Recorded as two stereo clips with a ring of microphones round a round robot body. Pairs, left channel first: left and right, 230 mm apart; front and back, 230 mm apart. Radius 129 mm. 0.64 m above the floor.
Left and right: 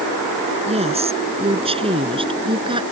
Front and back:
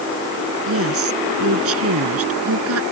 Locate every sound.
0.7 s a woman speaking: 155° right; by 2.8 s 160° right